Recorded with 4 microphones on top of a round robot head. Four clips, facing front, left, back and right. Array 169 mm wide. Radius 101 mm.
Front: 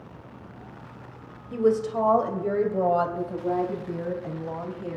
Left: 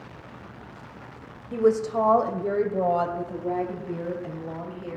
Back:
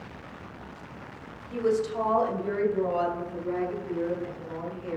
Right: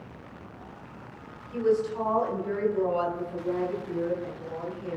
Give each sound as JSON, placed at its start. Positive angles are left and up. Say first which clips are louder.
{"t": 1.5, "sound": "a woman speaking", "louder": "left 4 dB, front 3 dB", "azimuth_deg": 75, "distance_m": 2.5}